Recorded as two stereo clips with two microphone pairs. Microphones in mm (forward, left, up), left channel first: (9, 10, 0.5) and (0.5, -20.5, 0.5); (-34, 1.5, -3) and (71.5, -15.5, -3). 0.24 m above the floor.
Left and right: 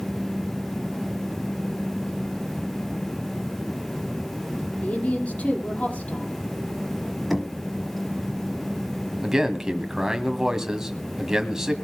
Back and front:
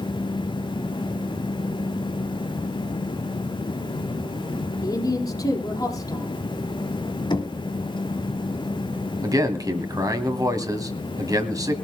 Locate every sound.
4.8 s a woman speaking: 115° left, 5.5 m
7.3 s knocking: 160° left, 1.4 m
9.2 s a man speaking: 40° right, 1.7 m